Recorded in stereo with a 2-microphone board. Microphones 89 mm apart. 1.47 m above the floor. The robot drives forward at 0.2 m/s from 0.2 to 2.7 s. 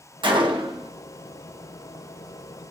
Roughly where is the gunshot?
Right.